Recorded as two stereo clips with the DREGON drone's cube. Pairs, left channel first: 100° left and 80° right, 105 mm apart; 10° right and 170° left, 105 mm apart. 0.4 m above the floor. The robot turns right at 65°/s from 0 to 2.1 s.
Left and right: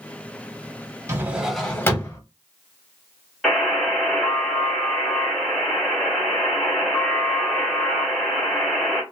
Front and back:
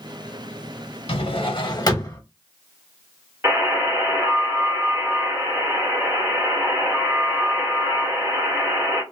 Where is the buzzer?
175° right, 1.4 m.